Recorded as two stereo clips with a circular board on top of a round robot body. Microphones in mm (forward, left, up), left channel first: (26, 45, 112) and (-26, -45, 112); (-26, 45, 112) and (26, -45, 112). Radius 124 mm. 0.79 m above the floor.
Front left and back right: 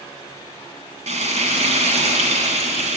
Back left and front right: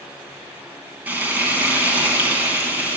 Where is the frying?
135° right, 4.5 m.